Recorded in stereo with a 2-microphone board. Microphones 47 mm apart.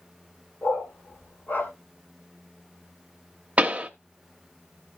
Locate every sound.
0.6 s a dog barking: 45° left (ahead or behind), 2.5 m
3.6 s a pop: 30° right (ahead or behind), 0.8 m